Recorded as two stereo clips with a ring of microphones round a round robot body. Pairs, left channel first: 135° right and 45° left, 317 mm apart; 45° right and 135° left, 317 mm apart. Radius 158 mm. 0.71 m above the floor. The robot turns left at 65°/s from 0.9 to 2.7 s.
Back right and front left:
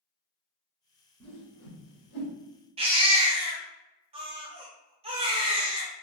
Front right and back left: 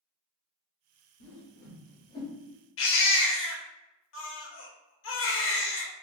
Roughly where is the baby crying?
Ahead.